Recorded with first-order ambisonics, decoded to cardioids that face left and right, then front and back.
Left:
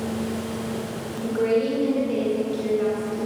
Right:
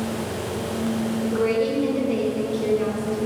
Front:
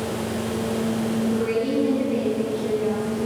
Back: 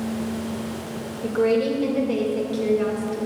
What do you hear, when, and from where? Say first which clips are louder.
1.2 s a woman speaking: left 1 dB, back 5 dB; 175° left, 1.8 m